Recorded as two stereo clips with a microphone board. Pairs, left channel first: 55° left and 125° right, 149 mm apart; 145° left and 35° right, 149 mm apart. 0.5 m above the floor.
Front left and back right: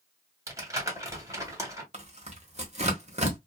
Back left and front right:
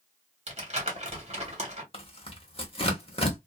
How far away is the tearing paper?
About 1.0 m.